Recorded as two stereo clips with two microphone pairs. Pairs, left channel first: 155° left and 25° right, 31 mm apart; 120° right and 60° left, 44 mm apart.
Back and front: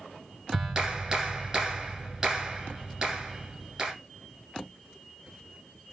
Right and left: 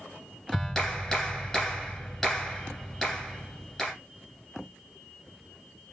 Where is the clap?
60° right, 1.3 m.